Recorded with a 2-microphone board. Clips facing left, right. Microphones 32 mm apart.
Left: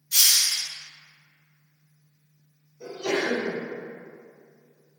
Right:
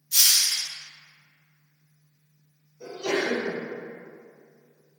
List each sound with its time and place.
0.1 s a hiss: 70° left (ahead or behind), 0.5 m
2.8 s a sneeze: 10° left (ahead or behind), 0.9 m